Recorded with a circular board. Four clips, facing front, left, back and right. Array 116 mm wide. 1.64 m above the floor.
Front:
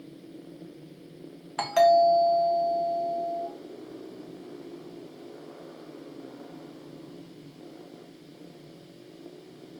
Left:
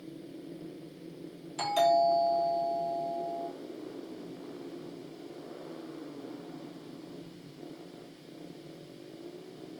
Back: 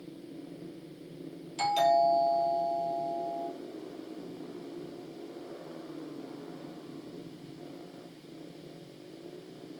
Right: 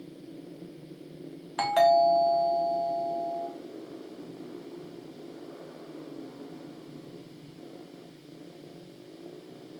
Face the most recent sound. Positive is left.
turn(degrees=-35)